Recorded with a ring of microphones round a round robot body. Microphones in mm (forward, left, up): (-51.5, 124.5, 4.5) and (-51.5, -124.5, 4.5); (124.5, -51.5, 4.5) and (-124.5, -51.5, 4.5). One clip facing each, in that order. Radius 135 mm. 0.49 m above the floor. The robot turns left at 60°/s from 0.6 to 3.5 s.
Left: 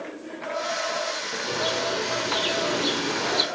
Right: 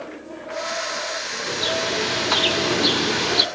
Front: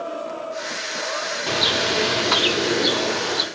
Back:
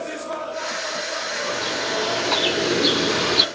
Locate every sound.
1.5 s a bird: 20° right, 0.6 m; by 3.5 s 135° right, 0.6 m